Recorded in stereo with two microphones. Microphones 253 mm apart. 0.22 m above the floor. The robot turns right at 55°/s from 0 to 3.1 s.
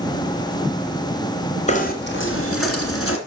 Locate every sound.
1.7 s knocking: 30° left, 2 m; by 3.2 s 110° left, 2 m